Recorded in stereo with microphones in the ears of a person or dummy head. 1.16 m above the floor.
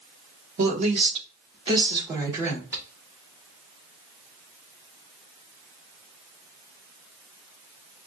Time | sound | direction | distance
0.6 | a woman speaking | 40° right (ahead or behind) | 1.3 m